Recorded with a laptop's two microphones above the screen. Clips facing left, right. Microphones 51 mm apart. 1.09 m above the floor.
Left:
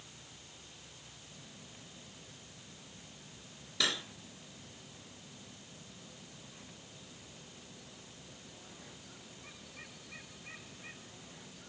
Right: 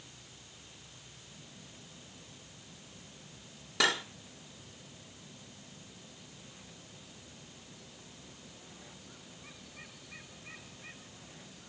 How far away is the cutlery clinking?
About 1.8 m.